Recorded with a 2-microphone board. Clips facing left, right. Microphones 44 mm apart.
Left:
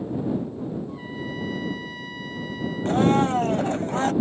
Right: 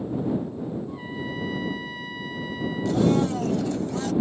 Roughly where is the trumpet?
Centre.